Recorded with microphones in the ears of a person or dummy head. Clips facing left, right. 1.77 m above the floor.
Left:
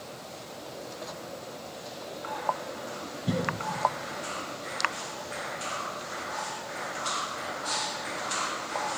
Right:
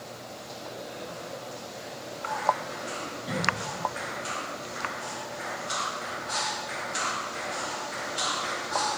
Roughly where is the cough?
Left.